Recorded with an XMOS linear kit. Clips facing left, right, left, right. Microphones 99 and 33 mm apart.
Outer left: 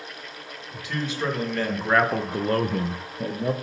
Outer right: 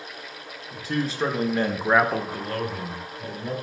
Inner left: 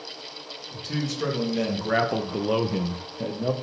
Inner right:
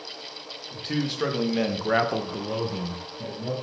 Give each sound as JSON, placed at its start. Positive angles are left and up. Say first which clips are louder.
{"t": 0.7, "sound": "a man speaking", "louder": "outer right 3 dB, inner right 2 dB", "side_deg": -40, "distance_m": 1.8}